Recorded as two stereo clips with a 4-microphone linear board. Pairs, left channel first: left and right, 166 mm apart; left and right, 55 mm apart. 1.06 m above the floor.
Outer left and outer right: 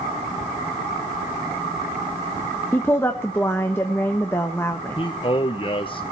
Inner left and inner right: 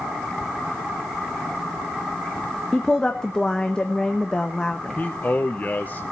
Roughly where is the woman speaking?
Centre.